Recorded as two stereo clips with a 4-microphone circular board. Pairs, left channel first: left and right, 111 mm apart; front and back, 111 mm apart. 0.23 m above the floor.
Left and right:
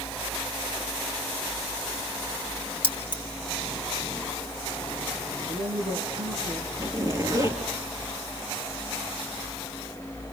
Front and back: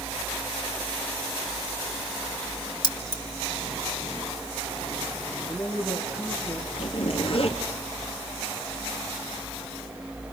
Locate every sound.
2.8 s keys jangling: 50° left, 3 m
5.5 s a man speaking: 100° right, 4.5 m
6.8 s a zipper: 35° right, 4 m